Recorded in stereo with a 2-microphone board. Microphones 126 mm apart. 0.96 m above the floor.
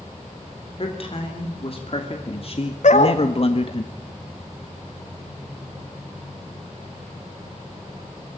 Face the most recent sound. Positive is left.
turn(degrees=65)  # may be behind; listen again after turning